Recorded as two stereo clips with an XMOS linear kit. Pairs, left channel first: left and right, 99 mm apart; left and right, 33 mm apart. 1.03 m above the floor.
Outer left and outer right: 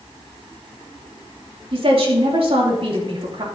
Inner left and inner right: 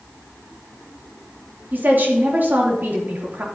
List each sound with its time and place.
1.7 s a woman speaking: 70° right (ahead or behind), 2.5 m